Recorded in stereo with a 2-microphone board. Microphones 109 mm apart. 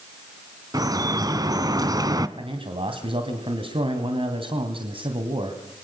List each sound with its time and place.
0.7 s dripping: 35° right (ahead or behind), 1.2 m
2.4 s a man speaking: 55° right (ahead or behind), 2.5 m